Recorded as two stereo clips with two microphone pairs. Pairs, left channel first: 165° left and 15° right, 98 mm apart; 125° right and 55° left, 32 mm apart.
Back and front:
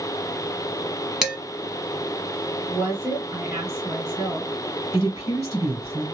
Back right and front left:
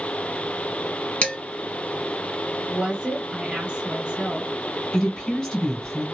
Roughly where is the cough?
I don't hear a cough.